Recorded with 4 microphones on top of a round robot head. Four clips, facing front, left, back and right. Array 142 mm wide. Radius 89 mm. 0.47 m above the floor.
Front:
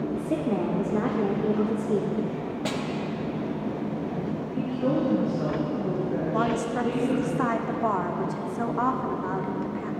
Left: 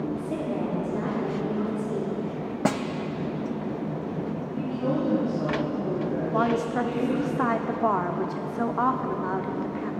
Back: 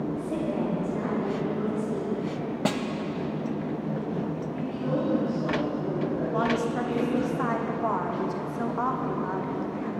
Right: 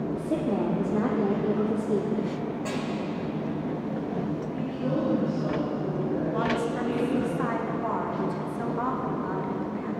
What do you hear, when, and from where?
0.1 s a woman speaking: 35° right, 1.3 m
2.6 s a snare drum: 115° left, 0.5 m
4.5 s a woman speaking: 45° left, 4.5 m
6.3 s a woman speaking: 75° left, 1.0 m